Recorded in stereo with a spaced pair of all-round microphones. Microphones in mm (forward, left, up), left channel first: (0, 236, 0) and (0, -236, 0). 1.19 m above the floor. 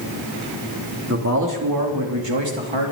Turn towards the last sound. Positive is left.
turn(degrees=-80)